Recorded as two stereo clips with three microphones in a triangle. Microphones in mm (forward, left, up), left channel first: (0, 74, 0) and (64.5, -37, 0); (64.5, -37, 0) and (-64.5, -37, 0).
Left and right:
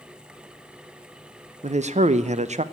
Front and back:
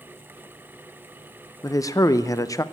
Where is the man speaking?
60° right, 0.6 m.